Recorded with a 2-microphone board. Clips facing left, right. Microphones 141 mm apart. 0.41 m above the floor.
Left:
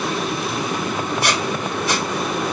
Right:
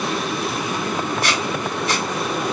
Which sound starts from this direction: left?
A squeak, at 1.2 s.